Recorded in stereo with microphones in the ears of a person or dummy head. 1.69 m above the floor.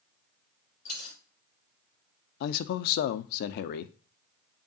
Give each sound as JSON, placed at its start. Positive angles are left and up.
{"t": 0.8, "sound": "a dropped coin", "side_deg": 45, "distance_m": 5.0}
{"t": 2.4, "sound": "a man speaking", "side_deg": 60, "distance_m": 0.6}